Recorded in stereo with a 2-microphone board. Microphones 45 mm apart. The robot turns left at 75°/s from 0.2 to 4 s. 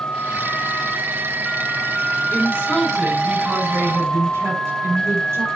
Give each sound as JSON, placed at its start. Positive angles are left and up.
{"t": 2.3, "sound": "a woman speaking", "azimuth_deg": 45, "distance_m": 6.5}